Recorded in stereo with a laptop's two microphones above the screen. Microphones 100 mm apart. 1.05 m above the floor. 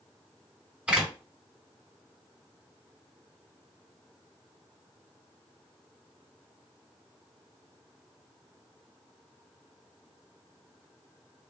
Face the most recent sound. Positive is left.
turn(degrees=-10)  # may be behind; listen again after turning